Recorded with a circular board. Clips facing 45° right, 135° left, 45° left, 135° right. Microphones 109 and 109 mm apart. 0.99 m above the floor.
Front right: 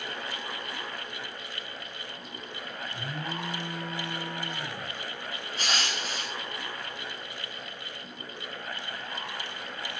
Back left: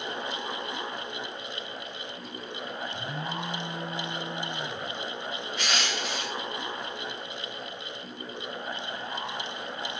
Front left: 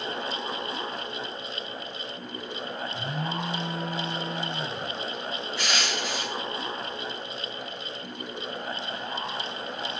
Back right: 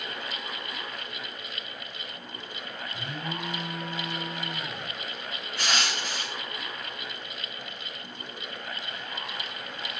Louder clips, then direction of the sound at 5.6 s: Even, back right 1 dB; 95° right.